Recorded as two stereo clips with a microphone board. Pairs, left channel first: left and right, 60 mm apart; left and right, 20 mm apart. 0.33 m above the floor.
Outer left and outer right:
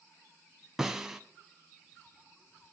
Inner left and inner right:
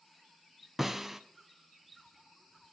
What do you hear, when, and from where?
0.8 s a snare drum: 10° right (ahead or behind), 0.9 m